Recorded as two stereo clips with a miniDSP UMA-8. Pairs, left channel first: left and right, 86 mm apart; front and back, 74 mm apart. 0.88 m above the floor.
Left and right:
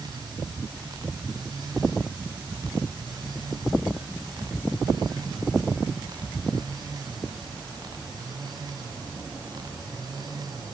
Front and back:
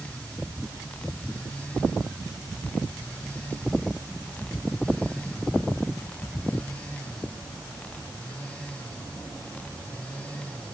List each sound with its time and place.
Only background noise.